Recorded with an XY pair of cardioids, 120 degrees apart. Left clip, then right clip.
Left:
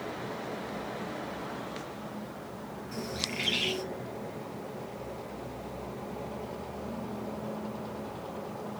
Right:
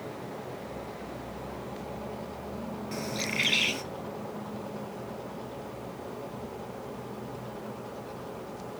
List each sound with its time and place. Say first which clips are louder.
2.9 s a bird: right 3 dB; 45° right, 2.5 m